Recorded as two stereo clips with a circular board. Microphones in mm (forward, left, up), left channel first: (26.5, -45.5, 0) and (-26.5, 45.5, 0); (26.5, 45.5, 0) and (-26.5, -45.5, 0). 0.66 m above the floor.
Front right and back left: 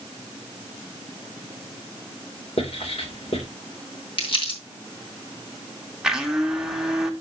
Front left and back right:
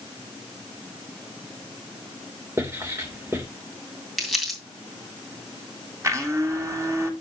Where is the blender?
160° right, 1.3 m.